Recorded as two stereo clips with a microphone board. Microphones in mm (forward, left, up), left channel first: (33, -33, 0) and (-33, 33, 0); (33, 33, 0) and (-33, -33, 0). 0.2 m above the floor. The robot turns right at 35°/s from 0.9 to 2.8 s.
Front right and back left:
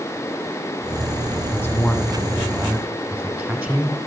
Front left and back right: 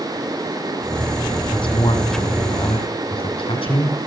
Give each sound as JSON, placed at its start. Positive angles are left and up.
{"t": 1.5, "sound": "a man speaking", "azimuth_deg": 10, "distance_m": 7.0}